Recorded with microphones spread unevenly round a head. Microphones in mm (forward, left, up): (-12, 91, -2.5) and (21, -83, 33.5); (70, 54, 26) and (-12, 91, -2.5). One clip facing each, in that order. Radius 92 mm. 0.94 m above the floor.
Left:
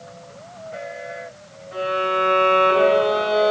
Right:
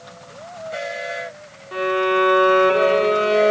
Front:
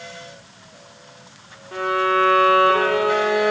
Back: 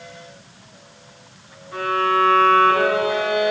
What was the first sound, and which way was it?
A violin, 80° right.